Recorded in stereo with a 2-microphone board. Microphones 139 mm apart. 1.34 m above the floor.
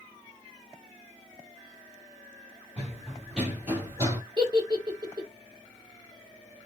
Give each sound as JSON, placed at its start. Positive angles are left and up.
{"t": 2.8, "sound": "running footsteps", "side_deg": 10, "distance_m": 1.4}
{"t": 4.4, "sound": "a giggle", "side_deg": -30, "distance_m": 1.0}